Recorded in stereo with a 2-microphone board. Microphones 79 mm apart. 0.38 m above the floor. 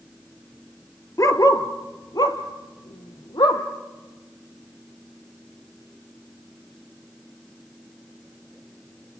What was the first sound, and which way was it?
A dog barking, 45° left (ahead or behind).